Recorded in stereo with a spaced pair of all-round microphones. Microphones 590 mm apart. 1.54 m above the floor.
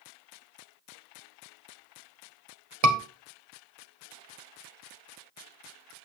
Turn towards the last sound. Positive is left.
turn(degrees=-80)